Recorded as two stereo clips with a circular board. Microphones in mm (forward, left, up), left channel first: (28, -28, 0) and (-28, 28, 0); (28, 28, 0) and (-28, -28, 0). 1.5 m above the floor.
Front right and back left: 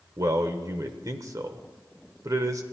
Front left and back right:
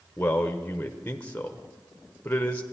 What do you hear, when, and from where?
0.2 s a man speaking: 110° left, 0.6 m